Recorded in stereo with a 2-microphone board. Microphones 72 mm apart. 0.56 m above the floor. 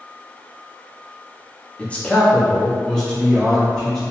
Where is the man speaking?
20° left (ahead or behind), 0.6 m; by 4.0 s centre (ahead or behind), 1.1 m.